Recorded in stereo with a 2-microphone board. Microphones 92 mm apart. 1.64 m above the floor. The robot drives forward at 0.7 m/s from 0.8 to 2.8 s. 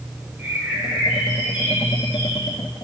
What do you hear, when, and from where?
0.4 s a bird: 20° right (ahead or behind), 5 m; by 2.6 s 15° right (ahead or behind), 6.5 m